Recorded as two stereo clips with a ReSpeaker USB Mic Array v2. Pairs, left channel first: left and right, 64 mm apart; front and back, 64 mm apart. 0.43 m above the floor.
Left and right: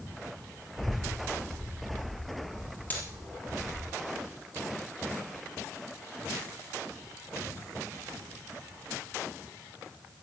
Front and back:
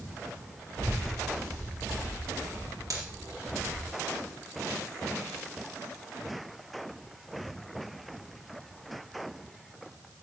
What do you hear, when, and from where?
0.8 s a child speaking: straight behind, 6.5 m
2.9 s a dropped coin: 155° left, 3.5 m